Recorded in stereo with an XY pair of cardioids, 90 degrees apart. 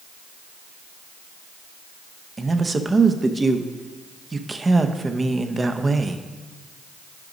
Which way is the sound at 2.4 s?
25° right.